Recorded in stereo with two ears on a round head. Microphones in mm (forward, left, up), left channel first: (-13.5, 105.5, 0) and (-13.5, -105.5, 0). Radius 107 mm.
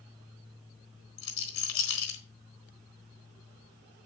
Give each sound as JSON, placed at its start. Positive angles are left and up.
{"t": 1.2, "sound": "a rattle", "side_deg": 65, "distance_m": 3.5}